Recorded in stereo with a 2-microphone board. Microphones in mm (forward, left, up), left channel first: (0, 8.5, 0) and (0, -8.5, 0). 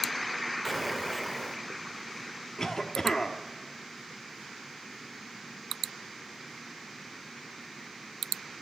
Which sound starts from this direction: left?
A cough, at 2.6 s.